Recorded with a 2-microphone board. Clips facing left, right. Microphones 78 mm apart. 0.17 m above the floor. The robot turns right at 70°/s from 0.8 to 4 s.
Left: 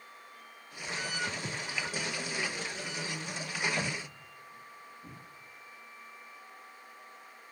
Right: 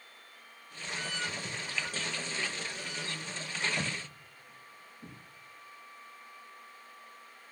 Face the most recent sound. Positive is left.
turn(degrees=-75)  # may be behind; listen again after turning